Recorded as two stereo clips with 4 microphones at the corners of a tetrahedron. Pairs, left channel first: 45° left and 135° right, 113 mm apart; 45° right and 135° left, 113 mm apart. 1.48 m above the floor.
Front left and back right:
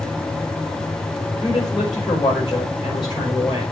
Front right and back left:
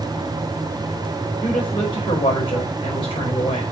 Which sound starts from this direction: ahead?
A woman speaking, at 1.4 s.